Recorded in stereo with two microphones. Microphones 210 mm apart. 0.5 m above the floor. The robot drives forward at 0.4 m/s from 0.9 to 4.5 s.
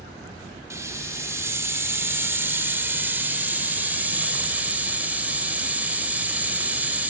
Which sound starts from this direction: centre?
A hiss, at 0.7 s.